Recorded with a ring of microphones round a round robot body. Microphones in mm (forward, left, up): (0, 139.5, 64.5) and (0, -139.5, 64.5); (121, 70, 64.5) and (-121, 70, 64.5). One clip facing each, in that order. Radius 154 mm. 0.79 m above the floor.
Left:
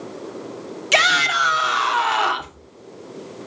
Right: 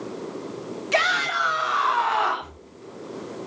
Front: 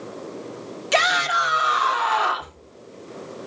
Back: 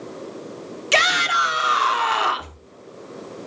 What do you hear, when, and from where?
0.9 s a shout: 130° left, 2.5 m